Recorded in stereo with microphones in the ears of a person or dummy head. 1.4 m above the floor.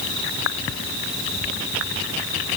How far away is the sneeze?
I don't hear a sneeze.